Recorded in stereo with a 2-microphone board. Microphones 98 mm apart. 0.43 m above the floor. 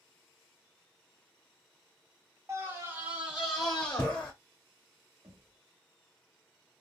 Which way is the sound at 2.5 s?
25° right (ahead or behind).